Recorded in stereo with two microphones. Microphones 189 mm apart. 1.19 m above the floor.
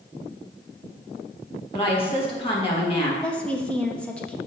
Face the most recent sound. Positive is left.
turn(degrees=5)  # may be behind; listen again after turning